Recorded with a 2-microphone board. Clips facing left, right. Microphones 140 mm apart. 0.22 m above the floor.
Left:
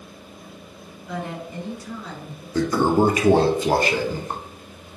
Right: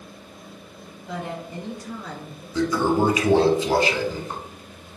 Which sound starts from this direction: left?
A toilet flushing, at 2.5 s.